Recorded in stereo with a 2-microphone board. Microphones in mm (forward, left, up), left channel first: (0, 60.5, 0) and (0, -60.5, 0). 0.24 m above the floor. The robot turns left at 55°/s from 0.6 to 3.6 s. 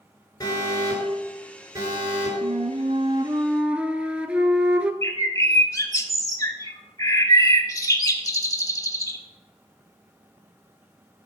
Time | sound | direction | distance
0.4 | an alarm | 35° left | 3.5 m
2.4 | a flute | 105° right | 0.5 m
5.0 | a bird | 30° left (ahead or behind) | 0.7 m